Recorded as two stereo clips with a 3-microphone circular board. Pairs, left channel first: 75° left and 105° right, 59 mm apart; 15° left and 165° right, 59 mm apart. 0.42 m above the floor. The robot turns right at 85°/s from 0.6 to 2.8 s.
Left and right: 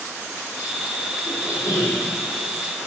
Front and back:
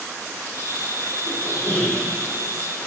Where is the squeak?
20° left, 7 m; by 2.1 s 90° left, 7 m.